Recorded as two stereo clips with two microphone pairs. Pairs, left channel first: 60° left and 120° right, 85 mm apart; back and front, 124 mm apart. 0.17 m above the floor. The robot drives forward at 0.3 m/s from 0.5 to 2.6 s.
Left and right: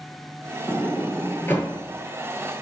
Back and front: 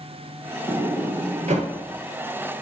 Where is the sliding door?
5° right, 0.8 m.